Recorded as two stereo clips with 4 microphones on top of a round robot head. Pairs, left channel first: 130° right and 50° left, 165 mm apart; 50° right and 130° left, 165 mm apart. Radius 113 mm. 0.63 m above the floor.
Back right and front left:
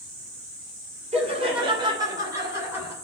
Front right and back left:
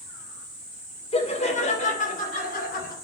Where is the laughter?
Straight ahead, 2.5 m; by 2.9 s 30° right, 3 m.